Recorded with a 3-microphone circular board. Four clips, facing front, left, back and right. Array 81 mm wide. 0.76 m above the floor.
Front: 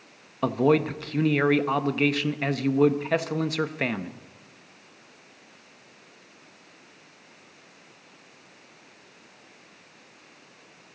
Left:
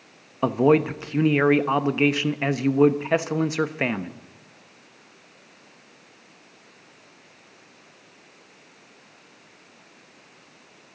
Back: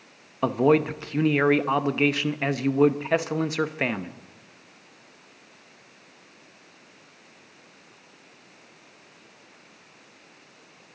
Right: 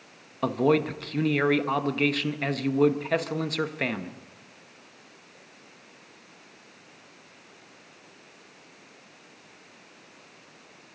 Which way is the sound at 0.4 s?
125° left.